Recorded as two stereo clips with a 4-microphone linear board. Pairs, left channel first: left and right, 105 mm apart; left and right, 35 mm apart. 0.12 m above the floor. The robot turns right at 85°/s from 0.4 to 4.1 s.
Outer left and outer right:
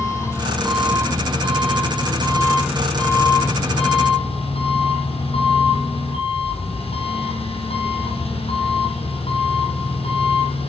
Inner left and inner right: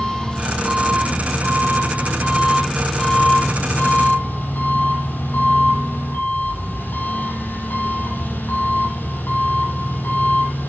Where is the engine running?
155° left, 5 m; by 10.7 s 110° left, 5 m.